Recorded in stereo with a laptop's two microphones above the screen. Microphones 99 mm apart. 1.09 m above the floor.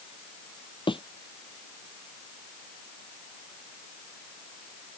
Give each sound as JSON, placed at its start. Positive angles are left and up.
{"t": 0.9, "sound": "a thud", "side_deg": 60}